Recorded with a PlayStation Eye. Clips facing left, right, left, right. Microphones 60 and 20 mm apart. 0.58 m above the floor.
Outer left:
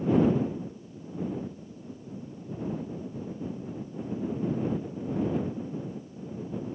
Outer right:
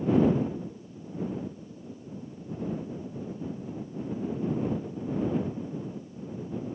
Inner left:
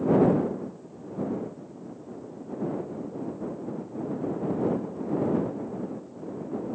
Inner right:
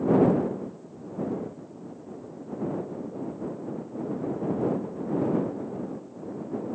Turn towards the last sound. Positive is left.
No sound to turn to.